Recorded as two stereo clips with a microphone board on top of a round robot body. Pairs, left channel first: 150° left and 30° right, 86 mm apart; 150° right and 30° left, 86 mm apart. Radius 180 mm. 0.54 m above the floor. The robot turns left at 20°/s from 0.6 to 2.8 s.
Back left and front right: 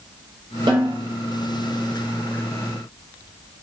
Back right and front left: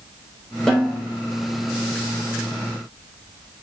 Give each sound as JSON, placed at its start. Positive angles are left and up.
{"t": 0.7, "sound": "a snare drum", "azimuth_deg": -65, "distance_m": 0.9}